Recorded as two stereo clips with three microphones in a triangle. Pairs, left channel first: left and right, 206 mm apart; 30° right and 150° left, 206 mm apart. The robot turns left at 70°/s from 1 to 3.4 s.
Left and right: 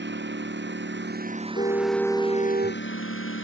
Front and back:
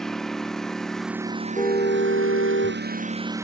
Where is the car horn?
35° left; by 2.8 s 55° right.